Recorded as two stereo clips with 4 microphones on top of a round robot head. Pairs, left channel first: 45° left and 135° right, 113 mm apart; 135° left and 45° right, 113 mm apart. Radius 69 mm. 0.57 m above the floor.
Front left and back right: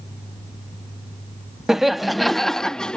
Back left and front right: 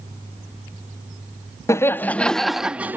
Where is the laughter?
140° left; by 3.0 s 25° right.